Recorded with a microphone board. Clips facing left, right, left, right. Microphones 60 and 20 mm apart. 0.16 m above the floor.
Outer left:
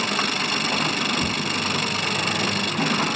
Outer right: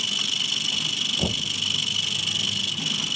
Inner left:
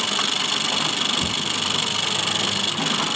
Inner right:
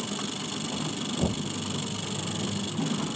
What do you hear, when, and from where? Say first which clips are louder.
0.0 s an engine running: outer left 6 dB, inner left 11 dB; 55° left (ahead or behind)
1.2 s knocking: outer left 3 dB, inner left 7 dB; 30° right (ahead or behind)